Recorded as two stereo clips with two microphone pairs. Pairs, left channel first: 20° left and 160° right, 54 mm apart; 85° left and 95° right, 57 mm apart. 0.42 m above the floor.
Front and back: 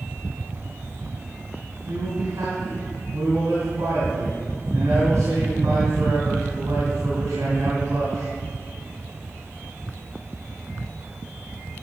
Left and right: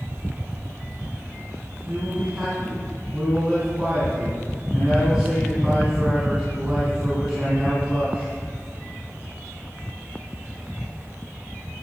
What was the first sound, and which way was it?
A man speaking, straight behind.